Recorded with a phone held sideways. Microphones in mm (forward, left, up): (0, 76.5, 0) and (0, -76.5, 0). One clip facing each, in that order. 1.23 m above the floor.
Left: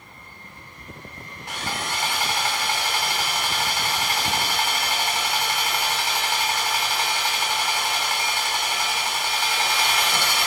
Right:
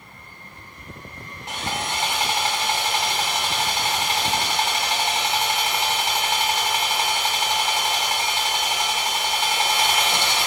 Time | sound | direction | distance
1.5 | sawing | 25° right (ahead or behind) | 0.8 m